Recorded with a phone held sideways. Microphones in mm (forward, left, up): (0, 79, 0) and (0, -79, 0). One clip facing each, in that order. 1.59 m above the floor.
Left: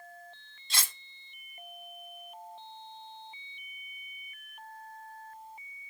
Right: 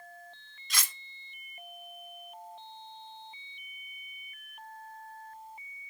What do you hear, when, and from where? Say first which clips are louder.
0.7 s cutlery clinking: even; 30° left (ahead or behind), 0.9 m